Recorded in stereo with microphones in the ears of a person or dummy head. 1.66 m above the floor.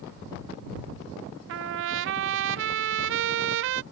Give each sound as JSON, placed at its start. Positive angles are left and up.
{"t": 1.5, "sound": "a trumpet", "side_deg": -60}